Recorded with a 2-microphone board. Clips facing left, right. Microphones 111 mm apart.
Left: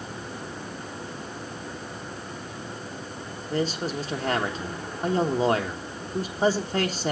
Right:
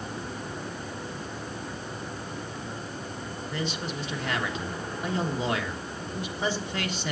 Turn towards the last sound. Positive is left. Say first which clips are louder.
# left 7 dB
turn(degrees=35)  # may be behind; listen again after turning